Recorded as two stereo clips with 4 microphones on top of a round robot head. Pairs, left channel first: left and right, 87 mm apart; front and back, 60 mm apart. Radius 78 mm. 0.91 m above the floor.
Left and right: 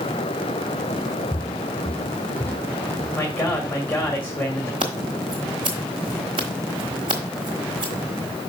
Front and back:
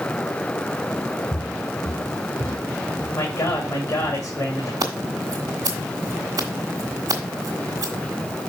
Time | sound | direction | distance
1.3 | footsteps | 25° left | 1.4 m
3.1 | a man speaking | 25° left | 1.9 m
4.8 | scissors | 130° right | 1.2 m